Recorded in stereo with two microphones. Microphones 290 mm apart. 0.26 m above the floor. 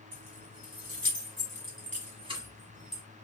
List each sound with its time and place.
0.1 s keys jangling: 60° right (ahead or behind), 2 m; by 3.0 s centre (ahead or behind), 1.4 m